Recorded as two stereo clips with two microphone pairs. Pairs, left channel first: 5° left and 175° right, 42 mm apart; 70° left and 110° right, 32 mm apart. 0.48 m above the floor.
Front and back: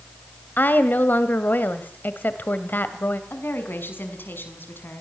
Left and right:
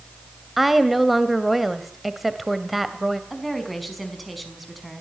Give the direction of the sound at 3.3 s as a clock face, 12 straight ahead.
1 o'clock.